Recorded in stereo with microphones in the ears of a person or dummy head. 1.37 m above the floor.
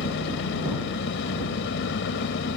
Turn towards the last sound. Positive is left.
turn(degrees=65)  # may be behind; listen again after turning